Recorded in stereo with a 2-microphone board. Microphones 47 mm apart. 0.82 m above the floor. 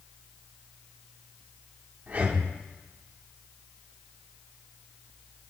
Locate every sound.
2.1 s breathing: 40° right (ahead or behind), 2.5 m